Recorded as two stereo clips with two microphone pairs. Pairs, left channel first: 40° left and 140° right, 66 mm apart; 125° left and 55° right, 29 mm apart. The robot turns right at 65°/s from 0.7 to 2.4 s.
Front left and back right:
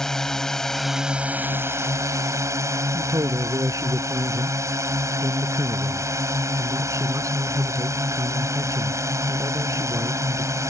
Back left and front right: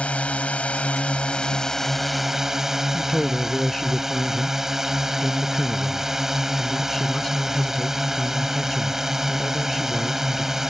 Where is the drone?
120° left; by 10.7 s 130° right.